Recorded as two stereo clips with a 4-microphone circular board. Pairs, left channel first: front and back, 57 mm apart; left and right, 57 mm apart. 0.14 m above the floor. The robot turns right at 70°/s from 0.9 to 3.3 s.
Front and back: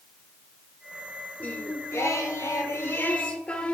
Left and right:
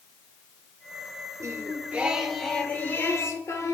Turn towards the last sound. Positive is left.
turn(degrees=70)